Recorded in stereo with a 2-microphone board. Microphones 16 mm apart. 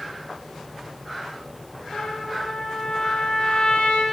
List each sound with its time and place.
1.9 s a trumpet: 65° left (ahead or behind), 2.5 m